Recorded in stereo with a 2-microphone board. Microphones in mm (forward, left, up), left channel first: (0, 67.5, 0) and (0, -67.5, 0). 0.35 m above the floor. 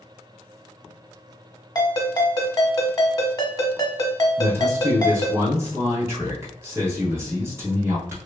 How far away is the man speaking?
About 1.2 m.